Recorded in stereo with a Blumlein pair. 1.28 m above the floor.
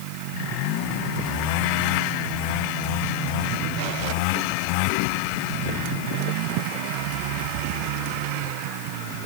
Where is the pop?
No pop in this recording.